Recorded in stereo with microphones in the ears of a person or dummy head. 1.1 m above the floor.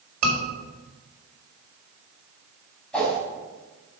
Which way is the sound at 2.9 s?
Centre (ahead or behind).